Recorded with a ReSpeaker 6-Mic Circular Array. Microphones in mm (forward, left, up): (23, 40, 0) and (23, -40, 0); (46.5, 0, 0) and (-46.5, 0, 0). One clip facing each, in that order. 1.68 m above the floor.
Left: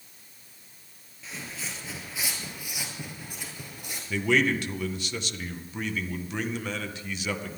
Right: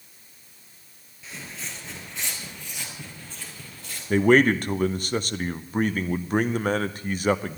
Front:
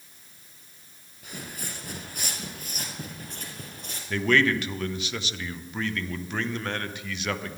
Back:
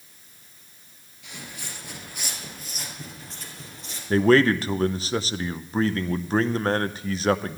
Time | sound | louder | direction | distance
1.2 | footsteps | even, front 2 dB | straight ahead | 2 m
4.1 | a man speaking | right 7 dB, back 6 dB | 130° right | 0.6 m